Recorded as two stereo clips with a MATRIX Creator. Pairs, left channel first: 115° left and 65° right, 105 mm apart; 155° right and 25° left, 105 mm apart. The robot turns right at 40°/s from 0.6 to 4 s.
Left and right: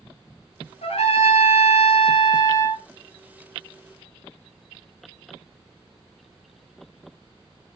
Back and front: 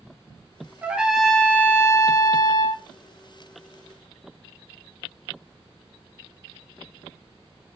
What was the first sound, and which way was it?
A trumpet, 100° left.